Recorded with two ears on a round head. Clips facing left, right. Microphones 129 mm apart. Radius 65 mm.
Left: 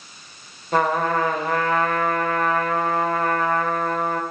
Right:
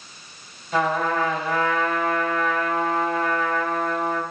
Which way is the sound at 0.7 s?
40° left (ahead or behind).